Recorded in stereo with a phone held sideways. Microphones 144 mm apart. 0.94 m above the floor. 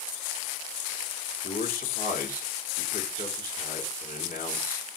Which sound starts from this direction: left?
A man speaking, at 1.4 s.